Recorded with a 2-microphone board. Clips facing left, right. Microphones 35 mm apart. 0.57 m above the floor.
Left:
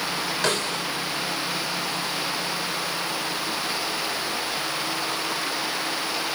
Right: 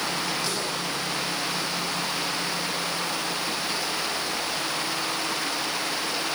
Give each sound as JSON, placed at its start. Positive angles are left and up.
{"t": 0.4, "sound": "a snare drum", "side_deg": 75, "distance_m": 5.5}